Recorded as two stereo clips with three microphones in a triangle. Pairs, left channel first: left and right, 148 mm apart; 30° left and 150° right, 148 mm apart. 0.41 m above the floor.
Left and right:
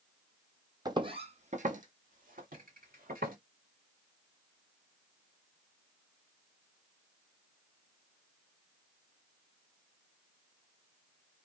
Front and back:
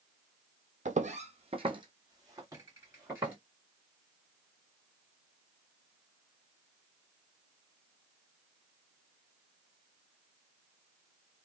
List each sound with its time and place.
0.8 s footsteps: 145° right, 0.7 m; by 3.4 s 75° right, 1.6 m